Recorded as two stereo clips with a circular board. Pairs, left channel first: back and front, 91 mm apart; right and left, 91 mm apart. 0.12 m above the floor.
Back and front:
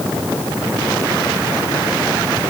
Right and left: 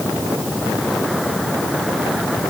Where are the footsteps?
I don't hear footsteps.